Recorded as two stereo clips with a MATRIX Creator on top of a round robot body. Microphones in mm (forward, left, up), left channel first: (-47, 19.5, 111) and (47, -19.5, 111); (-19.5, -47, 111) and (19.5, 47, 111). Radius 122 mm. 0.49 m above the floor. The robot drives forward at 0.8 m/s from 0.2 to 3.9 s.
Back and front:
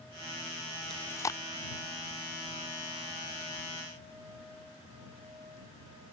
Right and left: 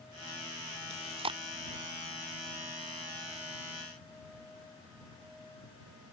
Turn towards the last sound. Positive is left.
turn(degrees=165)